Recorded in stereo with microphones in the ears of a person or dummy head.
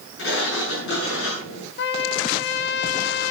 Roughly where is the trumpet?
Left.